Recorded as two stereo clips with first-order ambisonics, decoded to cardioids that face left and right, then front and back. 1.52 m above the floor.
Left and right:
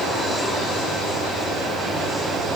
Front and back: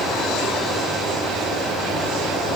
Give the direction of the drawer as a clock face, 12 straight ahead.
No drawer in this recording.